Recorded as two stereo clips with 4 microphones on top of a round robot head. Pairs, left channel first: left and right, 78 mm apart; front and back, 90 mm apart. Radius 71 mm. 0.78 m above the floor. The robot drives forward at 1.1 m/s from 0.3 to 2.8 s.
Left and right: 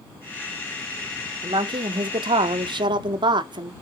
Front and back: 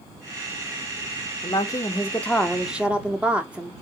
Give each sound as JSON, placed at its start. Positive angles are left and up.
{"t": 1.4, "sound": "a woman speaking", "azimuth_deg": -55, "distance_m": 2.0}